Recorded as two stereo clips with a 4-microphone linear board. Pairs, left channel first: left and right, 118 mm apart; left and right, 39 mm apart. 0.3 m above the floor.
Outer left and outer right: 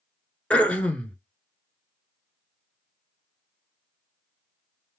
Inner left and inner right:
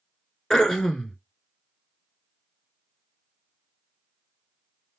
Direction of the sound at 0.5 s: 10° left (ahead or behind).